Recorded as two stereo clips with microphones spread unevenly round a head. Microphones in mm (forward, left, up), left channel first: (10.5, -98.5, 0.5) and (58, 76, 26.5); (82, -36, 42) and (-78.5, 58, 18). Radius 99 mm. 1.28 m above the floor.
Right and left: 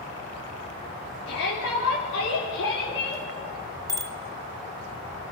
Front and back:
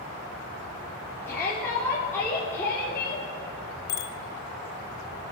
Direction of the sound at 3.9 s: 5° left.